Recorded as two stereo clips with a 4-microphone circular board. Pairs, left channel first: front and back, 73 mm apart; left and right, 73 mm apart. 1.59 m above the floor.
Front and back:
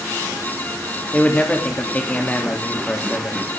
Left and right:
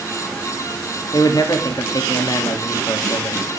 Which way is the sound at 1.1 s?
70° left.